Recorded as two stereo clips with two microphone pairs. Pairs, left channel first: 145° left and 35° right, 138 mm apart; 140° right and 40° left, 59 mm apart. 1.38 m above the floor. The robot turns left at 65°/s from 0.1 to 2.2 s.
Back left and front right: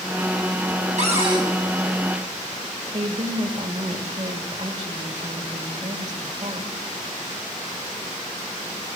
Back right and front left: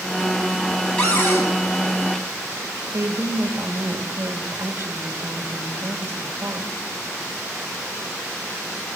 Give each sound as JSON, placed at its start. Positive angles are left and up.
{"t": 1.0, "sound": "a cupboard door", "azimuth_deg": -65, "distance_m": 9.5}
{"t": 2.9, "sound": "a woman speaking", "azimuth_deg": 0, "distance_m": 2.5}